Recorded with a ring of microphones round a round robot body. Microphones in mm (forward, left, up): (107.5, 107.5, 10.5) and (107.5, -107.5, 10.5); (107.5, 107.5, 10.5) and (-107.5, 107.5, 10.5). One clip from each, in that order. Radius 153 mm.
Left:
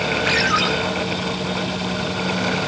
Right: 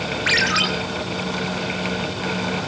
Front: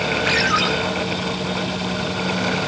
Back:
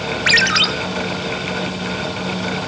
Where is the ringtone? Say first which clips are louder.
Right 1 dB, back 6 dB; 155° right, 2.5 m.